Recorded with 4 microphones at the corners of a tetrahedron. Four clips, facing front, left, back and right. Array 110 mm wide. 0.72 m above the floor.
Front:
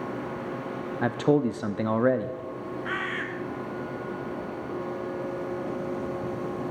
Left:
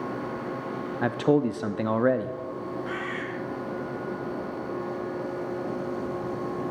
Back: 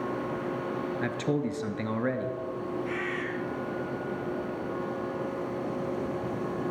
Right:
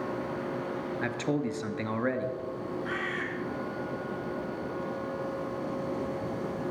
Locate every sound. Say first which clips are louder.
1.0 s a man speaking: left 9 dB, front 9 dB; 40° left, 0.7 m
2.9 s a bird: left 1 dB, front 1 dB; 5° right, 2.5 m